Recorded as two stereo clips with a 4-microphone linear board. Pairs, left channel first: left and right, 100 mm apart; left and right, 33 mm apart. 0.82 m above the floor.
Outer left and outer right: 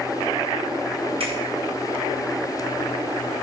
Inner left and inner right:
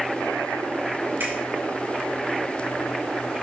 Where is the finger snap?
75° right (ahead or behind), 5 m.